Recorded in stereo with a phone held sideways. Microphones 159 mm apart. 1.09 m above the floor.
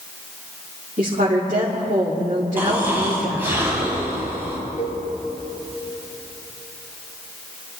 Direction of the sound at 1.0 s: 55° right (ahead or behind).